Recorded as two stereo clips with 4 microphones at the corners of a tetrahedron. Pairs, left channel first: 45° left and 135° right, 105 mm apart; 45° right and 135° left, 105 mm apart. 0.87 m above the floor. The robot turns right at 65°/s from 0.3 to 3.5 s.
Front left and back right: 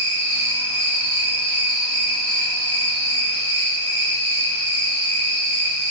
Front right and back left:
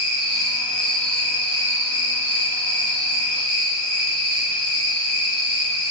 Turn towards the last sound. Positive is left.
turn(degrees=60)